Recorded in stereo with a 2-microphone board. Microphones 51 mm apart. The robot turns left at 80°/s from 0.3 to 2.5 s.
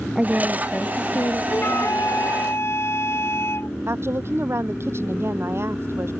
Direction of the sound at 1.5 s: 135° left.